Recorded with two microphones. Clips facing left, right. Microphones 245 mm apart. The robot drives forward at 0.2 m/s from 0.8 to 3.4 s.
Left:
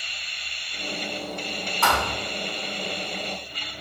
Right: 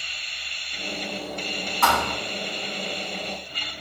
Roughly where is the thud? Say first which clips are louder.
Right 1 dB; right.